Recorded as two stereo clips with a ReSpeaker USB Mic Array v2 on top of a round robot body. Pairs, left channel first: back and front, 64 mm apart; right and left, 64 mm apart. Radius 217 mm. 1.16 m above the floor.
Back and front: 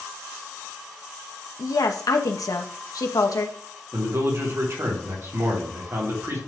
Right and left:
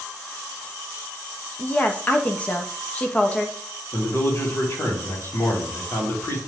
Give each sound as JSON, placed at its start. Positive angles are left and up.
{"t": 1.6, "sound": "a woman speaking", "azimuth_deg": -160, "distance_m": 1.1}
{"t": 3.9, "sound": "a man speaking", "azimuth_deg": -40, "distance_m": 3.0}